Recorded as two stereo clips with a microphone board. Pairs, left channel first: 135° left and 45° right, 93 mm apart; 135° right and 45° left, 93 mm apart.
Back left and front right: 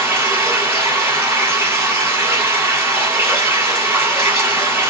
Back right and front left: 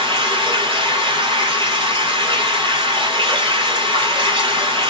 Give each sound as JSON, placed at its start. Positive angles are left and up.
{"t": 0.0, "sound": "running water", "azimuth_deg": 20, "distance_m": 1.7}